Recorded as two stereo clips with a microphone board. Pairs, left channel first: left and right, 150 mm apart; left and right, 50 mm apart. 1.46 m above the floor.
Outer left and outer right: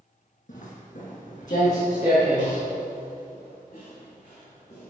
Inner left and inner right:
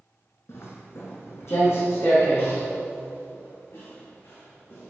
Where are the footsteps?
55° left (ahead or behind), 2.5 m; by 4.9 s 50° left (ahead or behind), 5.5 m.